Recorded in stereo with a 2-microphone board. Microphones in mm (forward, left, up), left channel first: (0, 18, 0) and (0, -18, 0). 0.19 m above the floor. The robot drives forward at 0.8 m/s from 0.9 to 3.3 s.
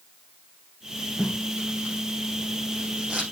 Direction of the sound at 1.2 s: 45° right (ahead or behind).